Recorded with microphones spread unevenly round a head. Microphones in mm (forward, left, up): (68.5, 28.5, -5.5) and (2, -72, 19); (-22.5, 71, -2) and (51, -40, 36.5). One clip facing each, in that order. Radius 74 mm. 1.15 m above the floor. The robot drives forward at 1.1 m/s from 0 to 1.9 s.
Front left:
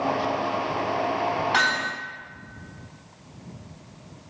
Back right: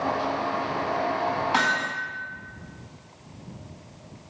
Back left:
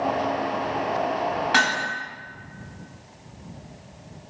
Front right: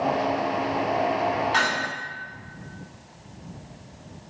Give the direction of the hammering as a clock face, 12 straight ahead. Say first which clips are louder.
Even, back left 1 dB; 7 o'clock.